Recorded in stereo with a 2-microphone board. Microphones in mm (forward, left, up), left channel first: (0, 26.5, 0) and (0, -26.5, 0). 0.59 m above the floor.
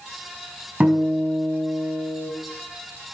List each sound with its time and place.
0.8 s a guitar: 30° right (ahead or behind), 4 m